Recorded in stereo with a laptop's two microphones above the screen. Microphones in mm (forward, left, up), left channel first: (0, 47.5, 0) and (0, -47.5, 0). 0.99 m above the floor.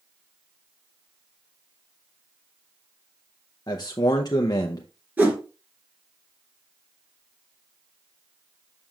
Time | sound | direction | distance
3.7 | a man speaking | 45° left (ahead or behind) | 0.6 m
5.2 | a whoosh | 15° right (ahead or behind) | 2.5 m